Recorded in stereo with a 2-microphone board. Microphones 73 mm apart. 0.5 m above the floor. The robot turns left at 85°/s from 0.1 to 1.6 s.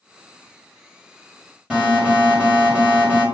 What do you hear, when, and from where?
1.7 s an alarm: 10° right (ahead or behind), 1.6 m